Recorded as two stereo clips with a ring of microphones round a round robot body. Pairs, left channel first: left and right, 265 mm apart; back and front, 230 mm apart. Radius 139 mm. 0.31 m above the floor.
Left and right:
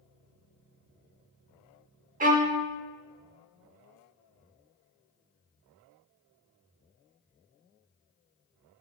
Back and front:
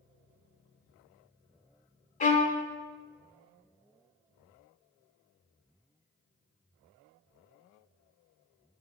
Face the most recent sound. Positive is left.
turn(degrees=-135)